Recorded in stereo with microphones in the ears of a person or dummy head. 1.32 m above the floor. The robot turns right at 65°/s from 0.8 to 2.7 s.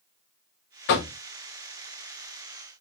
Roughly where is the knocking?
Left.